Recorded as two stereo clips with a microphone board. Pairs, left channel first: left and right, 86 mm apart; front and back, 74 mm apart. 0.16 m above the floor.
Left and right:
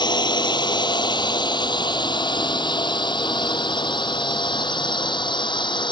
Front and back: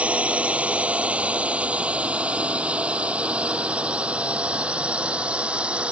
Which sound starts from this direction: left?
A drone, at 0.0 s.